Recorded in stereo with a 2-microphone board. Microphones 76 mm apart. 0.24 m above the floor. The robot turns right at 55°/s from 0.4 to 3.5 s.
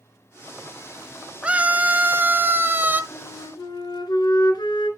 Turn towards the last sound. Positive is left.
turn(degrees=70)  # may be behind; listen again after turning